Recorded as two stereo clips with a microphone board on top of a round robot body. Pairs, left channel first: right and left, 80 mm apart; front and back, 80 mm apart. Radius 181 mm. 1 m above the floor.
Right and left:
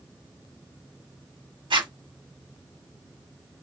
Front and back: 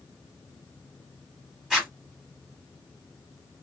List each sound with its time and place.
1.7 s a zipper: 100° left, 2 m